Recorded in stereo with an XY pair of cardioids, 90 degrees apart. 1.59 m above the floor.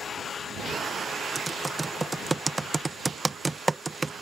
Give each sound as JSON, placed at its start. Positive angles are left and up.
{"t": 1.4, "sound": "typing on a keyboard", "azimuth_deg": -20}